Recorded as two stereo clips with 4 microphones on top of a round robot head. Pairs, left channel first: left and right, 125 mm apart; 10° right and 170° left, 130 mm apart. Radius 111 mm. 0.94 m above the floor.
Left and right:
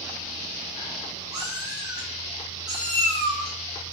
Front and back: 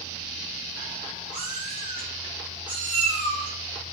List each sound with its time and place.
1.3 s a cat meowing: 130° right, 0.7 m